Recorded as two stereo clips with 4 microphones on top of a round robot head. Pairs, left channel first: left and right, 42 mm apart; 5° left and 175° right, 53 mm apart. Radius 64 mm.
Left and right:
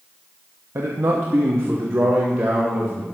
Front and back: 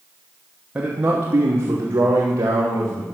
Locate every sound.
0.8 s a man speaking: 105° right, 1.1 m; by 3.1 s 145° right, 2 m